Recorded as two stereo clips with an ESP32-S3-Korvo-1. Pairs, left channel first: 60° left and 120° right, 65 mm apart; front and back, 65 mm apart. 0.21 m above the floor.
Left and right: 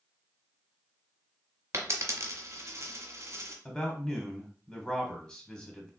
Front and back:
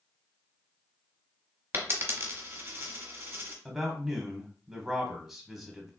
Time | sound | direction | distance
1.7 | a dropped coin | 140° right | 0.9 m
3.6 | a man speaking | 105° left | 1.1 m